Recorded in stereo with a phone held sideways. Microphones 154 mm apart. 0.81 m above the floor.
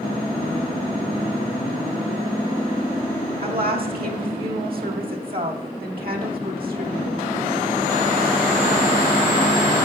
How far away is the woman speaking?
About 1.8 m.